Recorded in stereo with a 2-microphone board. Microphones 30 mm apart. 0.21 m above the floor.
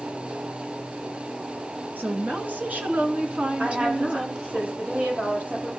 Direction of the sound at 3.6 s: 65° right (ahead or behind).